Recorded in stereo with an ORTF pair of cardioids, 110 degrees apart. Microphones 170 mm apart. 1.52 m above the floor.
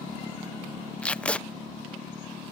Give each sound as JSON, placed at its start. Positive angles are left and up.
{"t": 1.0, "sound": "tape being pulled", "azimuth_deg": 5}